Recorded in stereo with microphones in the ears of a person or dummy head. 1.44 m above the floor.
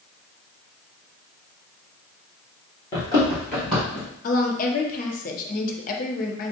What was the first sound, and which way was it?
Running footsteps, 15° left (ahead or behind).